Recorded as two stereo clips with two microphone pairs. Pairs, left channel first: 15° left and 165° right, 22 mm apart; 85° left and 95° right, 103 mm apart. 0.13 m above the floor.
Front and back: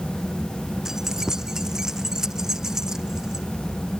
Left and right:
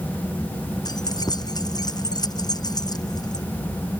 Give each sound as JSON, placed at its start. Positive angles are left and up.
{"t": 0.8, "sound": "keys jangling", "azimuth_deg": 135}